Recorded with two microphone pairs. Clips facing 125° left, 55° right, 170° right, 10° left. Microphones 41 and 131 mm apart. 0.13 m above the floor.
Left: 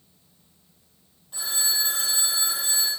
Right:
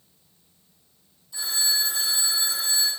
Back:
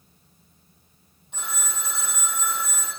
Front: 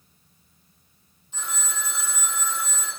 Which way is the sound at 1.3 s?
165° left.